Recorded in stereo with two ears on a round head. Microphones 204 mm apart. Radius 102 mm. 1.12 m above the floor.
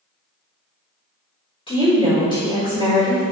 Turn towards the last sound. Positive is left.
turn(degrees=20)  # may be behind; listen again after turning